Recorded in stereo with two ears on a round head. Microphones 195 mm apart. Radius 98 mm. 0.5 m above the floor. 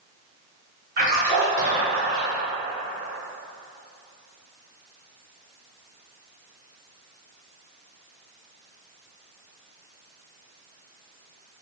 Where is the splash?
45° right (ahead or behind), 1.8 m.